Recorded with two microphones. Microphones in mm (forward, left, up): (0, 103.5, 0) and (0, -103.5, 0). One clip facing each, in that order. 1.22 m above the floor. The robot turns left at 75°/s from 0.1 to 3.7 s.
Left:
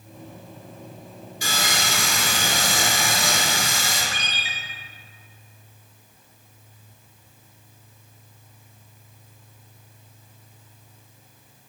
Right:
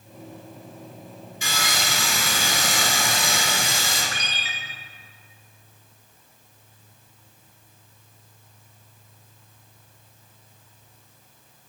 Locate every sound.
1.4 s sawing: 140° left, 3 m; by 4.0 s 30° right, 3 m
4.1 s a ringtone: 25° left (ahead or behind), 1.4 m